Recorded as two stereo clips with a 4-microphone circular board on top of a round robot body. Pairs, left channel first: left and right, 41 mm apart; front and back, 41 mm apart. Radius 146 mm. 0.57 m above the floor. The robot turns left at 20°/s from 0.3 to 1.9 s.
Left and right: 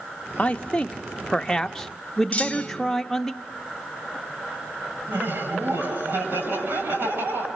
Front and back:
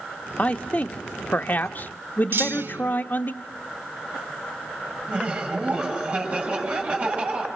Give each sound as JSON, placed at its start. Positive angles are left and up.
{"t": 0.4, "sound": "a man speaking", "azimuth_deg": 40, "distance_m": 0.9}
{"t": 2.3, "sound": "a clunk", "azimuth_deg": 155, "distance_m": 2.5}
{"t": 5.1, "sound": "laughter", "azimuth_deg": -125, "distance_m": 7.0}